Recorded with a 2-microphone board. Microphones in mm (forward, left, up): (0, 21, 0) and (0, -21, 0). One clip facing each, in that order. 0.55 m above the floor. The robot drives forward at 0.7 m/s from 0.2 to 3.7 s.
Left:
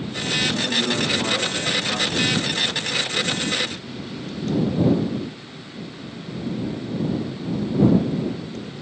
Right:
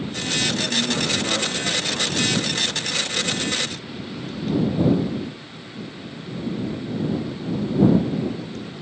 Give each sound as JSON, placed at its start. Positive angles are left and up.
{"t": 0.5, "sound": "a man speaking", "side_deg": 70, "distance_m": 6.0}